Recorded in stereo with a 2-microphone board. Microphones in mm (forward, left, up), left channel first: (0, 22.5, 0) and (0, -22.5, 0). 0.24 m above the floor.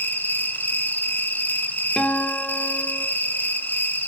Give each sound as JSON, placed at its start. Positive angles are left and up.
{"t": 0.0, "sound": "an insect", "side_deg": 45, "distance_m": 1.2}
{"t": 2.0, "sound": "a guitar", "side_deg": 25, "distance_m": 1.9}